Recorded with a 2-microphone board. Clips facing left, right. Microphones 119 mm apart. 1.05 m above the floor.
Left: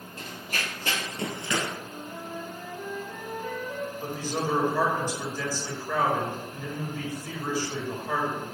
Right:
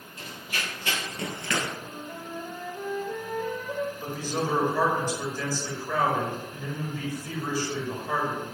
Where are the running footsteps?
50° left (ahead or behind), 1.7 m; by 1.7 s 10° left (ahead or behind), 1.0 m.